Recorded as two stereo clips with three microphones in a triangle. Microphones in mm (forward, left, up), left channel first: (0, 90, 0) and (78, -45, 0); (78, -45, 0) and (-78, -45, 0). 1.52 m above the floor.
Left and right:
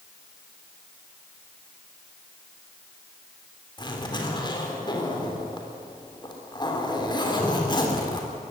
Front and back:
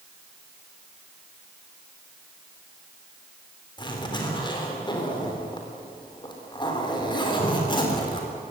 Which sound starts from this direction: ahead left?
A zipper, at 3.8 s.